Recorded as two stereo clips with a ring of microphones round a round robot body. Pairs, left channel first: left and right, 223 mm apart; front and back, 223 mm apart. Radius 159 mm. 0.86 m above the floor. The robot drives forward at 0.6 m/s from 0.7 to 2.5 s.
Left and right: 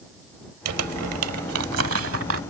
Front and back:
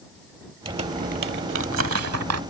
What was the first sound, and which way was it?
Crumpling, 105° right.